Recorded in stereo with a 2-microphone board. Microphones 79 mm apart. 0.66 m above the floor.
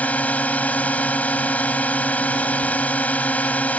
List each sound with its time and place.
0.0 s a drone: 20° left (ahead or behind)